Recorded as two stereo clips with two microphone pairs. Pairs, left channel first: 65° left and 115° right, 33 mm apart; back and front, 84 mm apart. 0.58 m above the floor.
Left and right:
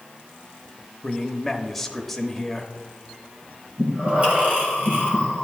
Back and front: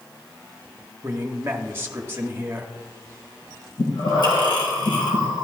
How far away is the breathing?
About 2.5 m.